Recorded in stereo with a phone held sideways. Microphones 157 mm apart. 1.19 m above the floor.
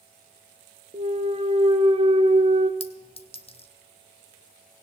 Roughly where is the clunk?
Right.